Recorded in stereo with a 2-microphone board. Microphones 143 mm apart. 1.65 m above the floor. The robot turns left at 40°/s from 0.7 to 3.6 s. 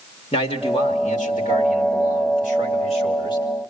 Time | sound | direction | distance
0.3 | a man speaking | 135° left | 2.5 m